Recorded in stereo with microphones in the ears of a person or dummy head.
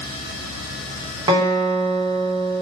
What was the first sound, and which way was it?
A guitar, 25° right (ahead or behind).